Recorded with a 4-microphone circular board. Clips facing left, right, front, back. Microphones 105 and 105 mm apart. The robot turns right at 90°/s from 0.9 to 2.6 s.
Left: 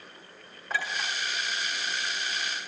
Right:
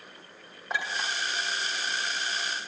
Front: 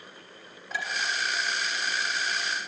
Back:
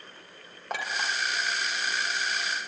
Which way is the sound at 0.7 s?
160° right.